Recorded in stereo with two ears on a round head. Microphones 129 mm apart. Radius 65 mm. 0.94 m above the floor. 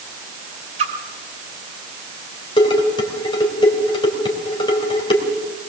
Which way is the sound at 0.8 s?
45° right (ahead or behind).